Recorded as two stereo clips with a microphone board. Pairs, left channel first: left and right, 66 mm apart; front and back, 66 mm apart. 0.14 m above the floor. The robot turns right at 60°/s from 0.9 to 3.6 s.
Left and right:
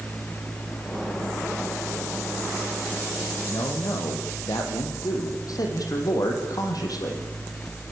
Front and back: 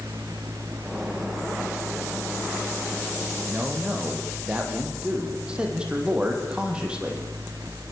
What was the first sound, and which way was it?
A man speaking, 100° left.